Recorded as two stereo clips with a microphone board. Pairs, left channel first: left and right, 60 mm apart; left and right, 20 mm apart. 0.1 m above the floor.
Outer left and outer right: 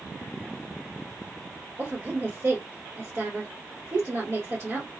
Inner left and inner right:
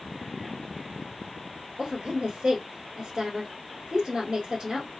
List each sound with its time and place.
1.8 s a woman speaking: 40° right (ahead or behind), 2 m